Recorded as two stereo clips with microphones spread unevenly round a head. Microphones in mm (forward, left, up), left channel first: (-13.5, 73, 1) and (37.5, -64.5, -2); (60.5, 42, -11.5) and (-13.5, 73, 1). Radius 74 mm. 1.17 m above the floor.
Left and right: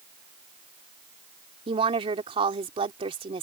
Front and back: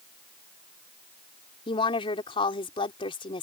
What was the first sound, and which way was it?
A woman speaking, 15° right.